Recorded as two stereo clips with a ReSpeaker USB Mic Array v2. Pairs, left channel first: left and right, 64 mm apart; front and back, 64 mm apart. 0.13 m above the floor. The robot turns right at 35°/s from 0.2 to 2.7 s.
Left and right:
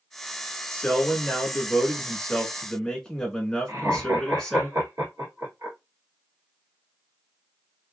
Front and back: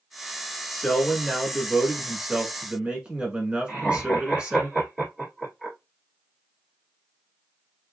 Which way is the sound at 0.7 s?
80° left.